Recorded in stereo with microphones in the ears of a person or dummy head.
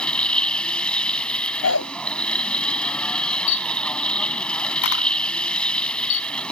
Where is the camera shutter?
65° left (ahead or behind).